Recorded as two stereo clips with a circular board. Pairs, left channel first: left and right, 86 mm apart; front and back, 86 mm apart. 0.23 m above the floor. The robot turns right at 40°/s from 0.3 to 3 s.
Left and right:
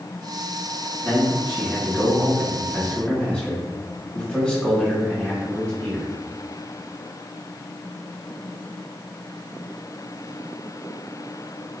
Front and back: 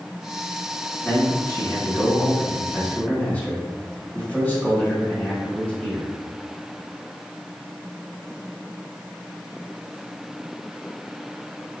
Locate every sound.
1.0 s a man speaking: 45° right, 1.4 m; by 6.1 s 35° left, 1.4 m